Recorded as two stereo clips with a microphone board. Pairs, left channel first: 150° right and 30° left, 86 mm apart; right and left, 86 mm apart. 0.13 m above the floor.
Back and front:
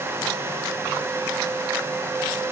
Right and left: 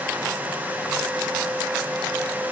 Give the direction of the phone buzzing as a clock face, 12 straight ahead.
No phone buzzing in this recording.